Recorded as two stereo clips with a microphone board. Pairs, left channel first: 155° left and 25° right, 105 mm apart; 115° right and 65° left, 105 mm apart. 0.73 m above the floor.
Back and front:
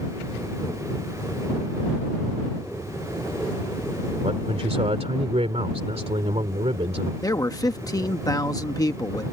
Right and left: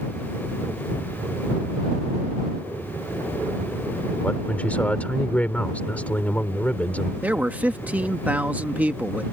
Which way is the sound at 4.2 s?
35° right.